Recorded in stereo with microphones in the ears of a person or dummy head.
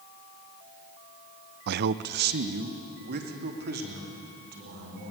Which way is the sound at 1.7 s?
55° right (ahead or behind).